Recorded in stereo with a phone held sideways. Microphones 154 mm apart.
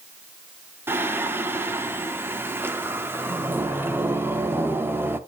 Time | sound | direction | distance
0.9 | singing | 15° right (ahead or behind) | 0.6 m